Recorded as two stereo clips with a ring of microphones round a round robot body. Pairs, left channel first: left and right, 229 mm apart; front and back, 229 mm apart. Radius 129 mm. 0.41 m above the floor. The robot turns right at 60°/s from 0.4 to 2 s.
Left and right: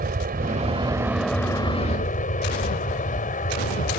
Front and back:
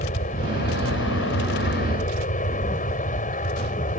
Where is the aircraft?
50° right; by 4.0 s 45° left.